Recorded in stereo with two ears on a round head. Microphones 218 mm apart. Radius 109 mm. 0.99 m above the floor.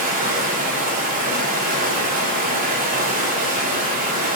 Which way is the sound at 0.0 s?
35° right (ahead or behind).